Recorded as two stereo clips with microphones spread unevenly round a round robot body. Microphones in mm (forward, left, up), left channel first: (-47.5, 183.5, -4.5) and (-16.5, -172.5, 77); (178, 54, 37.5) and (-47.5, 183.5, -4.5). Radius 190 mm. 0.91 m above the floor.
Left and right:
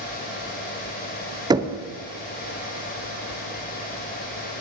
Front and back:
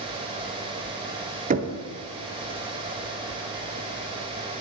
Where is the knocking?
175° right, 0.7 m.